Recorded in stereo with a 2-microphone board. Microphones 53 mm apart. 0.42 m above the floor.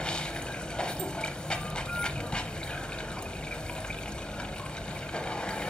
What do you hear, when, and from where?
0.0 s running water: 20° left (ahead or behind), 0.7 m